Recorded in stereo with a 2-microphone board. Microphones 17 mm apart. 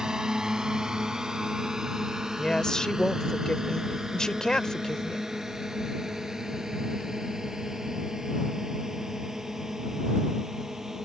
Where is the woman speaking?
45° left (ahead or behind).